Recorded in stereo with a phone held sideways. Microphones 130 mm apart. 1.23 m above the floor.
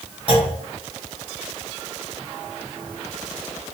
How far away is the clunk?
About 1.2 m.